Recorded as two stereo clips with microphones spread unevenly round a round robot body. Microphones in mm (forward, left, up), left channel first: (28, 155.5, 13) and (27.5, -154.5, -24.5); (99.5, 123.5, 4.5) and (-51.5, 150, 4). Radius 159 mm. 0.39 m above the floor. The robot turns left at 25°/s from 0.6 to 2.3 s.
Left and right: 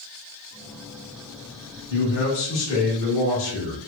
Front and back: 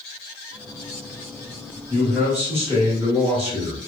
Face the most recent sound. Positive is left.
turn(degrees=105)